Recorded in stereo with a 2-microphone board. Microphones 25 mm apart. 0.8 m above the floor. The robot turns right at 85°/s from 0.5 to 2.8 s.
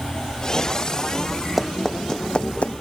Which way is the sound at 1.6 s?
10° right (ahead or behind).